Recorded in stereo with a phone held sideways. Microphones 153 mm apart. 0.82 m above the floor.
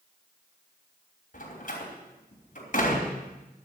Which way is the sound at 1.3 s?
60° left (ahead or behind).